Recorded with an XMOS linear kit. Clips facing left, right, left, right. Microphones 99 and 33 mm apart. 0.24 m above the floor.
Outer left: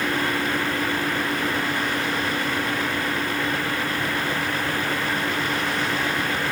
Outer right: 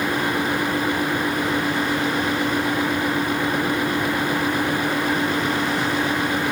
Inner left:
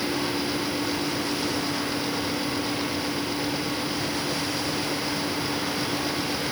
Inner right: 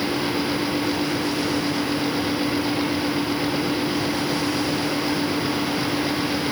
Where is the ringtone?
No ringtone in this recording.